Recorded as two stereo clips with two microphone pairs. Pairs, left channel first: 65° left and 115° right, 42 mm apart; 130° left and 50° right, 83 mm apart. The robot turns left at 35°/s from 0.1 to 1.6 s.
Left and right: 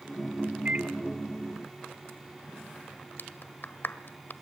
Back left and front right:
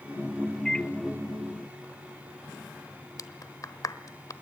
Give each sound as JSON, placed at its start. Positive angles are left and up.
{"t": 0.7, "sound": "a microwave", "azimuth_deg": -150, "distance_m": 0.7}
{"t": 3.2, "sound": "a clap", "azimuth_deg": 90, "distance_m": 1.2}